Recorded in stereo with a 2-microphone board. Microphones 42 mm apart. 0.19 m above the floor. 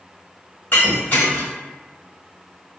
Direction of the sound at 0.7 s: 50° left (ahead or behind).